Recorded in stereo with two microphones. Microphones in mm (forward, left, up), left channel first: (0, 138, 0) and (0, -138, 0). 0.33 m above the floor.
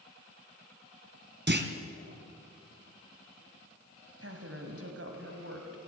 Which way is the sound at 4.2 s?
55° right (ahead or behind).